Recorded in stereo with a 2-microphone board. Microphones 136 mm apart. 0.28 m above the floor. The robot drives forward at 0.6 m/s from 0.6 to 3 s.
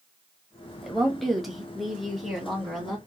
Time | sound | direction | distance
0.8 | a woman speaking | centre (ahead or behind) | 1.0 m